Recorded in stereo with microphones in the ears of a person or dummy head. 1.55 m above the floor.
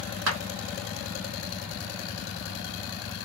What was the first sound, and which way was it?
A clap, 85° right.